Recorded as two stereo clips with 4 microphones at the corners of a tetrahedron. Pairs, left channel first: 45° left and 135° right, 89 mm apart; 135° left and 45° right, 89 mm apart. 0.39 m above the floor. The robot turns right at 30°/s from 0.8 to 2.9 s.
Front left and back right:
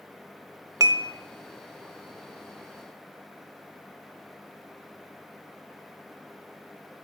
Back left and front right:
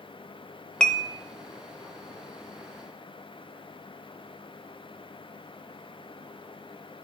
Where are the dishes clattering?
155° right, 0.5 m; by 1.1 s 145° right, 0.5 m.